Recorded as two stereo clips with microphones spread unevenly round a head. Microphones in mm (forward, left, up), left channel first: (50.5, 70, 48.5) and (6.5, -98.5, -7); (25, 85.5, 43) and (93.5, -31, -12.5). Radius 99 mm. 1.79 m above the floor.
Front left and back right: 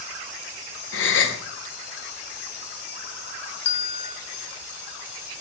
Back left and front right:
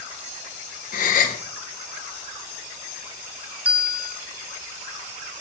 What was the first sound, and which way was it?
A gasp, 105° left.